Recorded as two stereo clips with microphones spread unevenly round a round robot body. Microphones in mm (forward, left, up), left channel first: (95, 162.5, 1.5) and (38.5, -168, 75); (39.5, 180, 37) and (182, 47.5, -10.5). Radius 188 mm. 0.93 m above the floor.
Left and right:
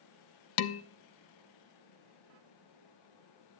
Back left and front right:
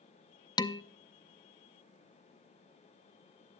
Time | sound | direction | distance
0.6 | dishes clattering | 65° left | 0.6 m